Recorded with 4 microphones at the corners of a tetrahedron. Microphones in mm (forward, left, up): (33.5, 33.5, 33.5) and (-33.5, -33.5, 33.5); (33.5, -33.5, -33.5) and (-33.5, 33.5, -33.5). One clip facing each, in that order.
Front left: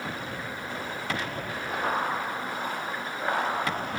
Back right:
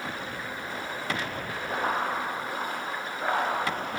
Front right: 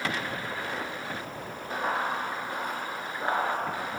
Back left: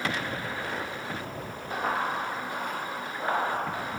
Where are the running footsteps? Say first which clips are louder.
Even, even; 90° right, 1.7 m; by 3.9 s 5° left, 1.3 m.